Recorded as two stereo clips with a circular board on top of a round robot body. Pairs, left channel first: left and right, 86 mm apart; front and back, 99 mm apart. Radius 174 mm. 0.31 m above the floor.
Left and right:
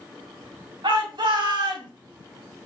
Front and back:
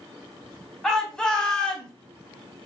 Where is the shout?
85° right, 4.5 m; by 1.9 s 80° right, 3.5 m.